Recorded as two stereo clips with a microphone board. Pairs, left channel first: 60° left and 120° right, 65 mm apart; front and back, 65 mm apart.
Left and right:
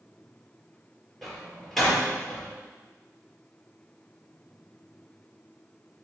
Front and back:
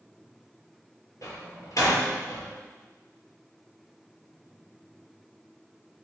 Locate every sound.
1.2 s a door slam: 25° right, 5 m